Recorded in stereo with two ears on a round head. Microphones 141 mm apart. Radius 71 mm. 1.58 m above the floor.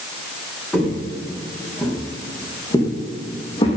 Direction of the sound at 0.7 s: Centre (ahead or behind).